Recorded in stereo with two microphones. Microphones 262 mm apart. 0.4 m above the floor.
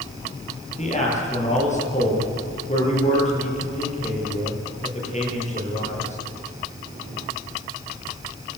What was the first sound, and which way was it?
A man speaking, 25° left (ahead or behind).